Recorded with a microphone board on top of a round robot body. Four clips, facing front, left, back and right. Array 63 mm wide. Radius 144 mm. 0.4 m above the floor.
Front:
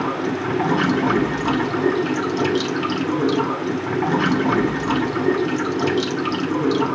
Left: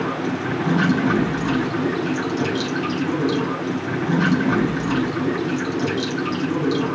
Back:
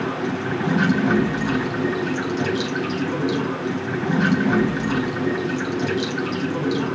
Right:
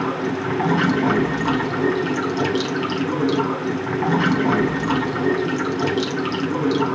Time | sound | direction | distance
0.0 | running water | 50° right | 3.5 m